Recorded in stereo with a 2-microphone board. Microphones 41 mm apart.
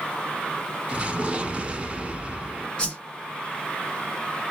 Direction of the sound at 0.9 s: 25° right (ahead or behind).